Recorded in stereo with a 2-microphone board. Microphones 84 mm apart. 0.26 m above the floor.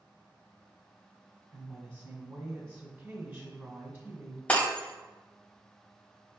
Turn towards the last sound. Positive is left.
turn(degrees=15)  # may be behind; listen again after turning